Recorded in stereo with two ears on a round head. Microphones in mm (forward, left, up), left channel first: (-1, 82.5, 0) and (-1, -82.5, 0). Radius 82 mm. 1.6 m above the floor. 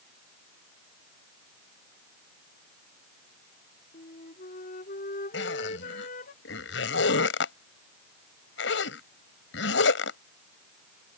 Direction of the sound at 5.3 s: 70° left (ahead or behind).